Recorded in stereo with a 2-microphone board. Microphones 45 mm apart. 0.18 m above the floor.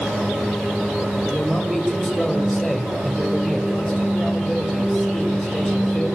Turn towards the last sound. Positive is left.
turn(degrees=0)  # may be behind; listen again after turning